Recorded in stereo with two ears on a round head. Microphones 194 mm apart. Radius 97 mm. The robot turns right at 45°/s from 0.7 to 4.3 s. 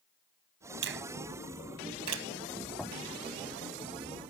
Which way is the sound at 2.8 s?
Centre (ahead or behind).